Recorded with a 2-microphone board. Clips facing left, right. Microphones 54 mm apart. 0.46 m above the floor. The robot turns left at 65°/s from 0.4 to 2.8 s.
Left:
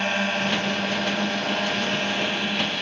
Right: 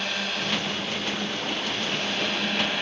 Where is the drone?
145° left; by 2.8 s 10° right.